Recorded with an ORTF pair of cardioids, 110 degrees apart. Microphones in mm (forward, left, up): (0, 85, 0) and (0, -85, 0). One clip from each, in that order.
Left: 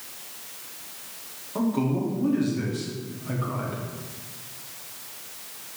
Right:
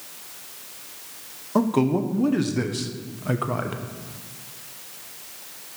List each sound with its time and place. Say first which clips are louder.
1.6 s a man speaking: right 5 dB; 55° right, 1.0 m